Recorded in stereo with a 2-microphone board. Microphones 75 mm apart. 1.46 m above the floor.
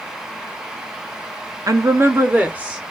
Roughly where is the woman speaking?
Right.